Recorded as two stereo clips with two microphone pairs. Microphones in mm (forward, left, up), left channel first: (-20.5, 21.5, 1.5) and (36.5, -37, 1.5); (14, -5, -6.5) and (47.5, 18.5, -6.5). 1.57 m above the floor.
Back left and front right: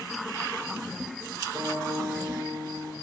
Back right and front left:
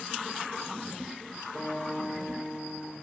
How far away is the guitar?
About 5 m.